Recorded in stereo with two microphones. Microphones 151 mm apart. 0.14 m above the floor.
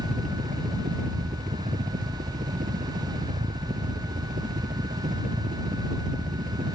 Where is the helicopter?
60° right (ahead or behind).